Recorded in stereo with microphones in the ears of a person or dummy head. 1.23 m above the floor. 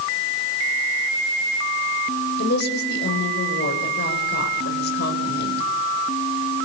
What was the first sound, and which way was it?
A woman speaking, 60° left (ahead or behind).